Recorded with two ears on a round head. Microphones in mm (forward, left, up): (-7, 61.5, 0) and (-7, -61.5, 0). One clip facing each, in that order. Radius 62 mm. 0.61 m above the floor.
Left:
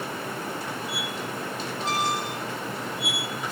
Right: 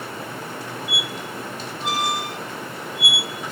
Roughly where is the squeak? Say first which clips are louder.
Right 1 dB; centre.